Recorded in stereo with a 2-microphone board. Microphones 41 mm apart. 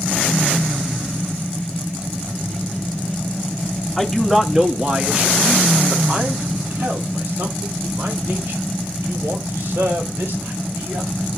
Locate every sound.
4.0 s a man speaking: centre (ahead or behind), 1.6 m; by 11.3 s 80° right, 6.5 m